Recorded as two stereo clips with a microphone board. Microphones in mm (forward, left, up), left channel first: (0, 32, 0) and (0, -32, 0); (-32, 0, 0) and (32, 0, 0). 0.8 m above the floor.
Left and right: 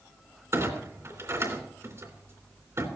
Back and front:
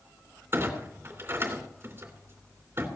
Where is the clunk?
50° right, 3 m.